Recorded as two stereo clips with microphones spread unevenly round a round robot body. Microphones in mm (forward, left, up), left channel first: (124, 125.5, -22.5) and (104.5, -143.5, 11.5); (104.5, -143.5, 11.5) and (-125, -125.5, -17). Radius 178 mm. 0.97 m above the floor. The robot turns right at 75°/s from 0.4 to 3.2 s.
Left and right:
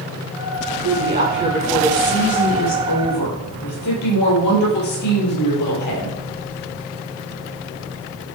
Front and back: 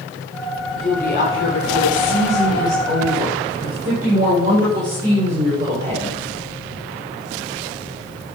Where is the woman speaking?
80° right, 4 m; by 6.2 s 105° left, 4 m.